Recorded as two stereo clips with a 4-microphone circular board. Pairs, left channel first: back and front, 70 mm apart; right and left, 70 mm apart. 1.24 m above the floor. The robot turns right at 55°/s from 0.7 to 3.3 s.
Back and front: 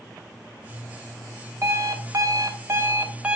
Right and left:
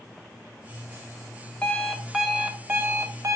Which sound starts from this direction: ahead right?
An alarm clock, at 1.6 s.